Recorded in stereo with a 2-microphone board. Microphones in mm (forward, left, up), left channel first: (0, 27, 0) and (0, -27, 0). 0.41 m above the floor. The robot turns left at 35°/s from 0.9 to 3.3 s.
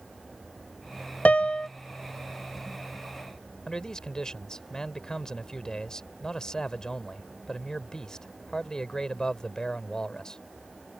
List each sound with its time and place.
1.2 s a piano: 25° left (ahead or behind); by 1.7 s 15° left (ahead or behind)
3.7 s a man speaking: 15° left (ahead or behind)